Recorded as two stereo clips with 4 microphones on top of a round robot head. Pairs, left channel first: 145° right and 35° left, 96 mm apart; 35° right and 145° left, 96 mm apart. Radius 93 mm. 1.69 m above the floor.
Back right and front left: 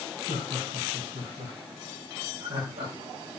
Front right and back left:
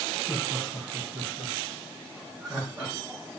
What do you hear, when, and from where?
0.3 s laughter: 55° left, 3 m; by 2.9 s 70° left, 4 m